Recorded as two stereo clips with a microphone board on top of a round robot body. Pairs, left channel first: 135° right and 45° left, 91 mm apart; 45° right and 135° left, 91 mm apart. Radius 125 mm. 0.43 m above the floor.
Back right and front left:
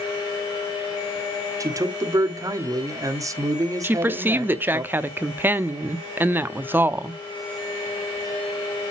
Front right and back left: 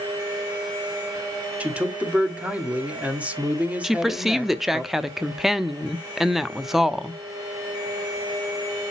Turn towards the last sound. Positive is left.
turn(degrees=55)